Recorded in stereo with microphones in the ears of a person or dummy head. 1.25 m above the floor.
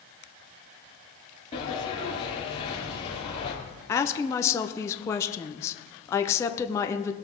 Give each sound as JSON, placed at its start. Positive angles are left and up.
{"t": 1.5, "sound": "a sliding door", "side_deg": 30, "distance_m": 3.5}
{"t": 3.9, "sound": "a woman speaking", "side_deg": 10, "distance_m": 0.7}